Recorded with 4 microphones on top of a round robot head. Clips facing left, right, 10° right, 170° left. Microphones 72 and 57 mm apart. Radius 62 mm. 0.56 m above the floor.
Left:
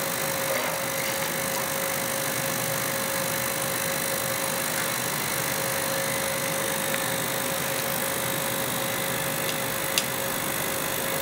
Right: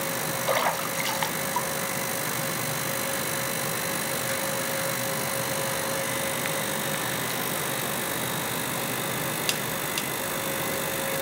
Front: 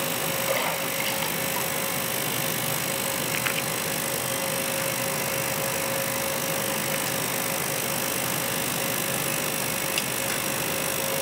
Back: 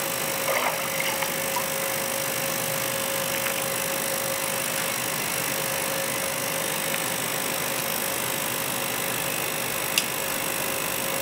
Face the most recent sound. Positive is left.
turn(degrees=-120)